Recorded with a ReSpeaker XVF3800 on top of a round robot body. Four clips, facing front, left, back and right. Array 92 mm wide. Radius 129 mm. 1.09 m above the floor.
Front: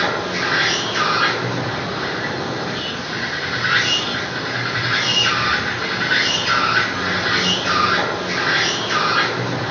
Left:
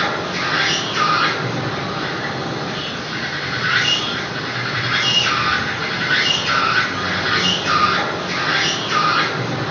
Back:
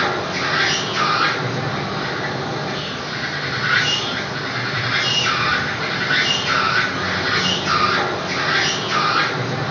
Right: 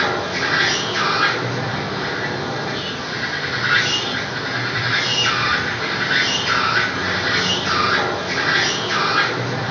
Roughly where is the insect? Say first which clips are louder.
Right 1 dB, even; behind left.